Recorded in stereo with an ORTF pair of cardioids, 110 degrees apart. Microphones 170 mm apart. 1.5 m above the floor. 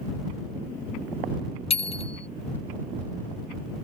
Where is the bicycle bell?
35° left.